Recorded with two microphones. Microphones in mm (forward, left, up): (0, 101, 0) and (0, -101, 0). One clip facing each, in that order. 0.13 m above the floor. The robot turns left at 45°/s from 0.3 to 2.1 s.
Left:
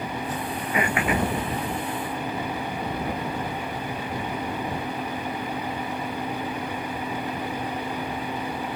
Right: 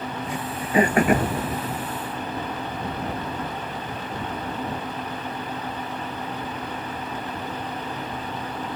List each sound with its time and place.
0.3 s throat clearing: 10° right (ahead or behind); by 1.3 s 55° right (ahead or behind)